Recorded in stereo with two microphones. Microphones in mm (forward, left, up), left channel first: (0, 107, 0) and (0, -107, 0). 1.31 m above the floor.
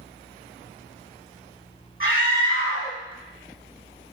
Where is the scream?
75° left (ahead or behind), 2.0 m.